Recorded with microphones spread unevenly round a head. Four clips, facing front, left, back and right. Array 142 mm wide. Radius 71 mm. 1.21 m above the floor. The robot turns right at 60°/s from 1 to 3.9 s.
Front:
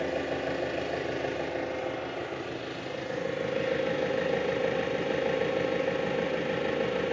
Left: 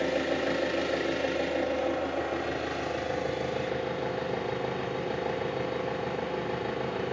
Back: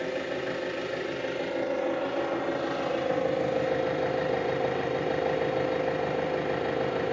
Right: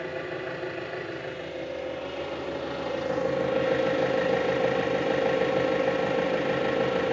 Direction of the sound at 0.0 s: 110° left.